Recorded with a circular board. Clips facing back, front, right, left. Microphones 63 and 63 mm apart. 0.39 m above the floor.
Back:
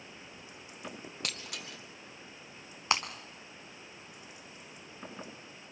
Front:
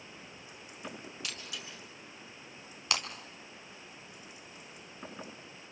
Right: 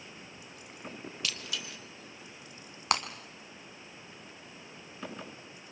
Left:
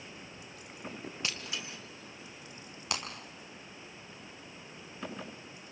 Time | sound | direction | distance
1.2 | breaking glass | 150° left | 1.9 m
2.9 | breaking glass | 120° right | 2 m